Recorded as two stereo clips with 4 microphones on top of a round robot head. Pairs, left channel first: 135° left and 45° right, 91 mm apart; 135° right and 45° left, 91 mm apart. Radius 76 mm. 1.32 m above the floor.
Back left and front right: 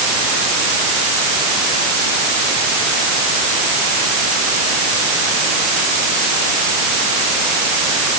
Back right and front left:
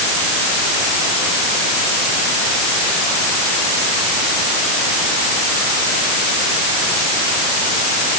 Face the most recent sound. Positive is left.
No sound to turn to.